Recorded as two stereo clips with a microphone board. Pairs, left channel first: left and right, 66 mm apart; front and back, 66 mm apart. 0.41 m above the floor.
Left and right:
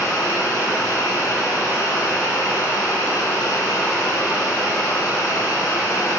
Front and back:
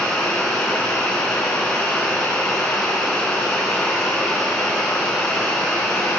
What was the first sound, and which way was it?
Running water, 75° left.